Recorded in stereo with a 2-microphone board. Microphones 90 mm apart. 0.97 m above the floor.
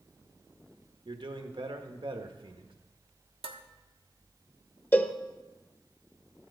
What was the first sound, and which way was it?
A man speaking, 65° right (ahead or behind).